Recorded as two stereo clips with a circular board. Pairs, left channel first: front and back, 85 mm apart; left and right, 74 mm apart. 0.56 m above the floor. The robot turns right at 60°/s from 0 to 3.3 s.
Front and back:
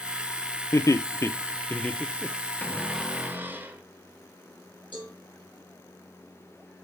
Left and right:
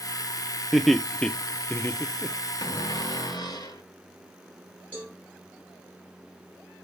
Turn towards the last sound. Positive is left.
turn(degrees=20)